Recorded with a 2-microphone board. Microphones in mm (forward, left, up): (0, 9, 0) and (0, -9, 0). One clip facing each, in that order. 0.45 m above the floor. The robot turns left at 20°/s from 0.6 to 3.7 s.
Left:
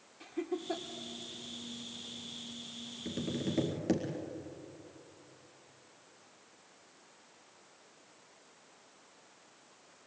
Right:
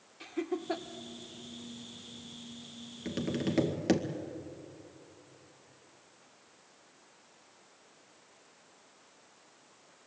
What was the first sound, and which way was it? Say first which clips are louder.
Laughter: right 2 dB; 25° right (ahead or behind).